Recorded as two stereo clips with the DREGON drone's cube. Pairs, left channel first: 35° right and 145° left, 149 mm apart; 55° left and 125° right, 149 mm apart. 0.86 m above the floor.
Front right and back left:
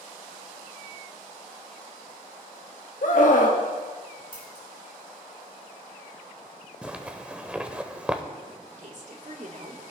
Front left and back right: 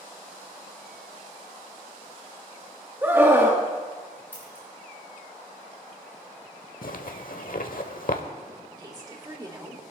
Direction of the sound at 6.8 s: 65° left.